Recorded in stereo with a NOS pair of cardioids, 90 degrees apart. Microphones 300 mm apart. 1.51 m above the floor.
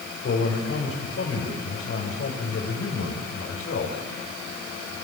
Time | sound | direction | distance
0.2 | a man speaking | 45° left | 6 m